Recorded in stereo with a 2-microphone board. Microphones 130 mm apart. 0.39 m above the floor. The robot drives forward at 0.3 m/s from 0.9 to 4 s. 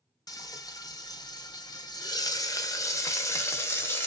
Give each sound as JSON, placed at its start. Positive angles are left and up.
{"t": 0.3, "sound": "frying", "side_deg": 30, "distance_m": 0.6}